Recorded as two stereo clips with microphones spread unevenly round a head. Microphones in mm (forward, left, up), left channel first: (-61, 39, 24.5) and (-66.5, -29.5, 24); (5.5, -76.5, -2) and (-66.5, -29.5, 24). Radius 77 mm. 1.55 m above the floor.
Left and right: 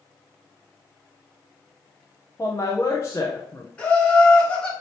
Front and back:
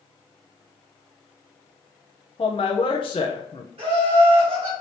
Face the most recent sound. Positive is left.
turn(degrees=160)